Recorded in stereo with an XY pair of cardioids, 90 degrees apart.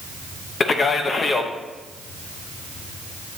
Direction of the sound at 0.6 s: 45° left.